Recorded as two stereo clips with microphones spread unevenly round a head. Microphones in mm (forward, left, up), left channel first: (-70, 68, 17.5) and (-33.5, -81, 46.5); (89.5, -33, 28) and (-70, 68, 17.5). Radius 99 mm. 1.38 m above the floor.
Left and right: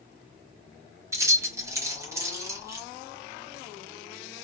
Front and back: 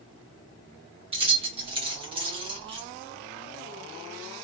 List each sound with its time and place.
1.1 s keys jangling: 145° right, 1.3 m